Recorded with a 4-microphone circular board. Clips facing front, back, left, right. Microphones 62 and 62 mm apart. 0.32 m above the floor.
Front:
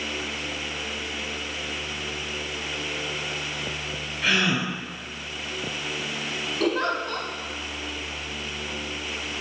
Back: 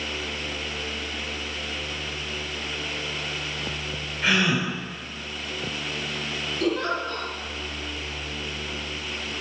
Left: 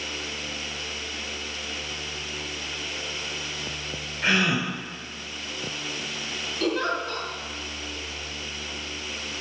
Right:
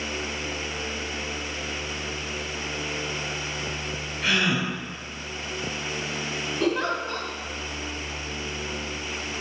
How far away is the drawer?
I don't hear a drawer.